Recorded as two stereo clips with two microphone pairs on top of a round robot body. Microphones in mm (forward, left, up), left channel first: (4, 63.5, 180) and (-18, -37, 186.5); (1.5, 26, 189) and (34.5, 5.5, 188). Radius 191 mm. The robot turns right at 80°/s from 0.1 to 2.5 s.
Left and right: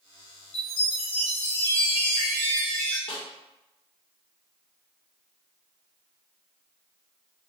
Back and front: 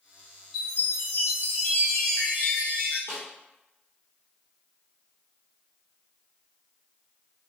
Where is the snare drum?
105° left, 0.6 m.